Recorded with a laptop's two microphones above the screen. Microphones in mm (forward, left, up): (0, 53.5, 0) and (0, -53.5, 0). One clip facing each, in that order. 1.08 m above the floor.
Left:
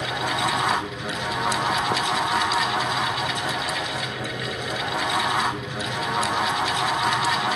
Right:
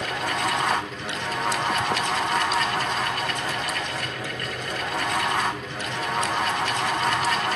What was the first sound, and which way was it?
A fan, 5° left (ahead or behind).